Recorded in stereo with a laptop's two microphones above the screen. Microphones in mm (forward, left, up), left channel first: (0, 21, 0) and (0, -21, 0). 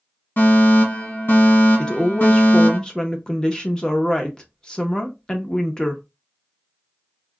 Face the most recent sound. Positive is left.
turn(degrees=20)  # may be behind; listen again after turning